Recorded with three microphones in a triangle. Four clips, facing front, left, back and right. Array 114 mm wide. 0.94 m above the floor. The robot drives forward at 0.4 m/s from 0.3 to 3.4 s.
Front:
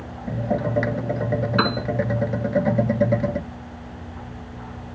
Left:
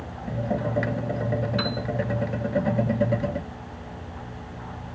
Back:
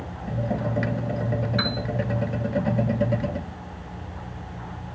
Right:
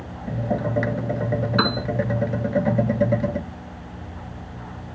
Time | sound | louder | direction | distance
1.6 | a piano | right 6 dB, front 6 dB | 40° right | ?